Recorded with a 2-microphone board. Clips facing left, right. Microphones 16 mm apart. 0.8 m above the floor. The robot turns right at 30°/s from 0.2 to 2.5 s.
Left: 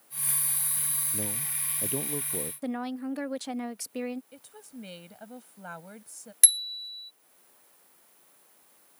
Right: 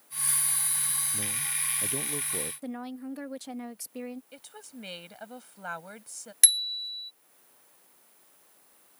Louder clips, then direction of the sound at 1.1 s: Right 2 dB; 140° left.